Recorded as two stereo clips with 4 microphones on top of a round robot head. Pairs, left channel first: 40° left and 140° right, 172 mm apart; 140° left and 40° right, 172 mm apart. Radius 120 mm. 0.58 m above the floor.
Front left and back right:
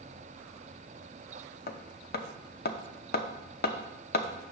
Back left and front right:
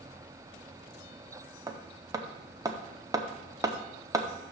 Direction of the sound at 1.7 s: 25° left.